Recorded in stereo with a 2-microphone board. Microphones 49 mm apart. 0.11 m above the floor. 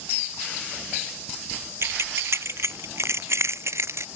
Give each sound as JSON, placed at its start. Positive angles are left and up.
{"t": 1.8, "sound": "keys jangling", "side_deg": -65}